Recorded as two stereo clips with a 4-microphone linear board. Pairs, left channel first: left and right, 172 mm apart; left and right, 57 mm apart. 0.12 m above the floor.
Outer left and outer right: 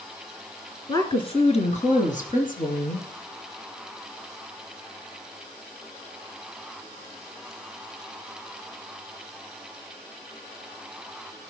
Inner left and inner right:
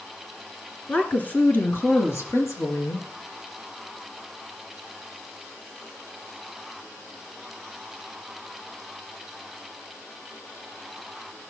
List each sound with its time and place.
0.9 s a woman speaking: 20° left (ahead or behind), 1.7 m; by 3.1 s 60° left (ahead or behind), 3 m